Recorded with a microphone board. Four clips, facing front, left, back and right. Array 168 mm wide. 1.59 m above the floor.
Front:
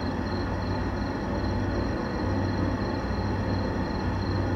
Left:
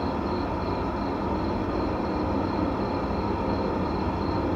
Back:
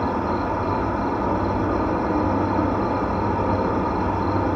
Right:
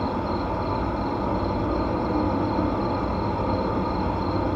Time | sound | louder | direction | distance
0.0 | an insect | right 2 dB, back 8 dB | 165° right | 2 m